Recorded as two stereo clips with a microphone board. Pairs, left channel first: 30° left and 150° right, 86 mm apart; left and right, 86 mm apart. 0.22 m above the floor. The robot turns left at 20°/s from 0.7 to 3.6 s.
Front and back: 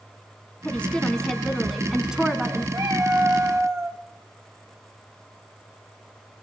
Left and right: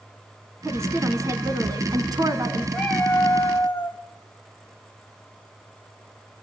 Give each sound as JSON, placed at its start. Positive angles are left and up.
{"t": 0.7, "sound": "a woman speaking", "azimuth_deg": -40, "distance_m": 2.5}
{"t": 2.7, "sound": "a cat meowing", "azimuth_deg": 170, "distance_m": 3.5}